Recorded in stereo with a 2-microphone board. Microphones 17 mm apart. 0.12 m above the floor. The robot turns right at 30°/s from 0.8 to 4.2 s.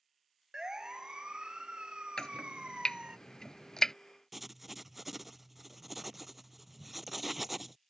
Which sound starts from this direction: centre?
Writing, at 4.3 s.